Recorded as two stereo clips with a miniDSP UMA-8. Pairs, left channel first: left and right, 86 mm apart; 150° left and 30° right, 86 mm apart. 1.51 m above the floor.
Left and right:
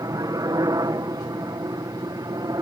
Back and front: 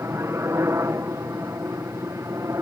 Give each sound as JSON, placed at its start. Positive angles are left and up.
{"t": 0.0, "sound": "a helicopter", "azimuth_deg": -70}